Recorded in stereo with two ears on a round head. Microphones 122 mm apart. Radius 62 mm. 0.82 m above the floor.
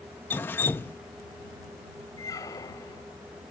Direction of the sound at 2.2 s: 25° left (ahead or behind).